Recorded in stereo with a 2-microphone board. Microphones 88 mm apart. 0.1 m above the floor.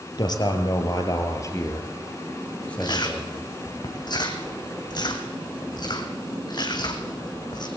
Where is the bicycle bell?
I don't hear a bicycle bell.